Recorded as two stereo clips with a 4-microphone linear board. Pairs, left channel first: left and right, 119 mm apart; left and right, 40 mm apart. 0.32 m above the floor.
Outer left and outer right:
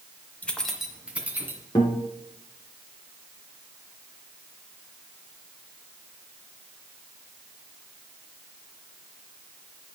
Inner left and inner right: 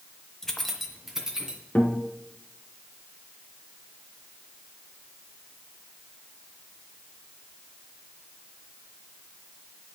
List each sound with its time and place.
0.4 s keys jangling: 15° left (ahead or behind), 1.0 m; by 1.6 s 15° right (ahead or behind), 2 m
1.8 s a guitar: 35° left (ahead or behind), 2 m